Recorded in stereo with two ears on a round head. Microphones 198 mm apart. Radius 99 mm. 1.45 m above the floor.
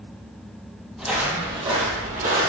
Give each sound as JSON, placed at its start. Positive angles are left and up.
{"t": 1.0, "sound": "footsteps", "side_deg": -5, "distance_m": 1.6}